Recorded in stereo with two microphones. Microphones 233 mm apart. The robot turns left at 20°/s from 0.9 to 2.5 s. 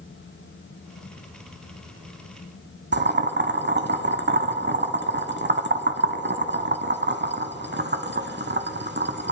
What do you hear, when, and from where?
2.9 s boiling: 50° right (ahead or behind), 0.6 m